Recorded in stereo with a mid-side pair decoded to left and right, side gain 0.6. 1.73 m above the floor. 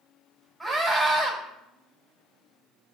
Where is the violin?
I don't hear a violin.